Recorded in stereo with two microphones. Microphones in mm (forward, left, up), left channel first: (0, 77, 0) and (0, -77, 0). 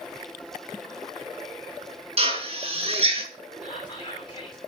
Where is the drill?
45° right (ahead or behind), 6 m.